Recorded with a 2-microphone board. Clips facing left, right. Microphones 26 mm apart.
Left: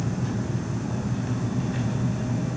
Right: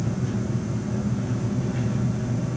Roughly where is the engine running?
Left.